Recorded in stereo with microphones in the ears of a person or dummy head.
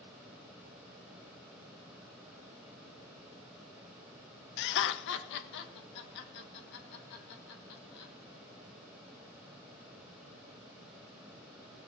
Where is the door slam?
No door slam in this recording.